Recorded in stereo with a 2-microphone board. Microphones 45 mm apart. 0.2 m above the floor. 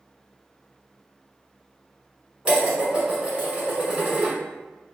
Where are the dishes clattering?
30° right (ahead or behind), 1.5 m.